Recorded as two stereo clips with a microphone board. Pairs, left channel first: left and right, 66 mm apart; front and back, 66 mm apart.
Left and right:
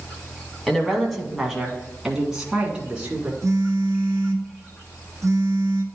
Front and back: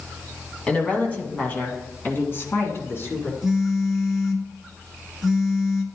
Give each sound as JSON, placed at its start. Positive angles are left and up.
{"t": 0.7, "sound": "a woman speaking", "azimuth_deg": 25, "distance_m": 1.4}
{"t": 3.4, "sound": "a phone buzzing", "azimuth_deg": -95, "distance_m": 0.9}